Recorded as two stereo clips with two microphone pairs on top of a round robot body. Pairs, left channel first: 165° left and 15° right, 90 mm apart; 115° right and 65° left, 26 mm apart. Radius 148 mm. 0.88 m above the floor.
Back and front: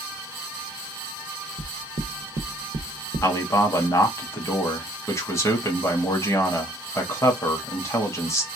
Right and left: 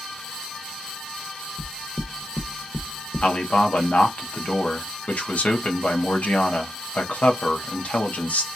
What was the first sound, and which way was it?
Knocking, 15° right.